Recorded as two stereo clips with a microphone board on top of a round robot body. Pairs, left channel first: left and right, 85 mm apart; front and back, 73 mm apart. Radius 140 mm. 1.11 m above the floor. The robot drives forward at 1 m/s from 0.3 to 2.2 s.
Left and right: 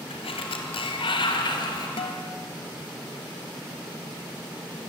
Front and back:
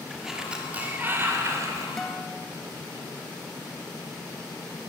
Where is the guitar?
85° left, 1.3 m; by 2.4 s 95° left, 1.3 m.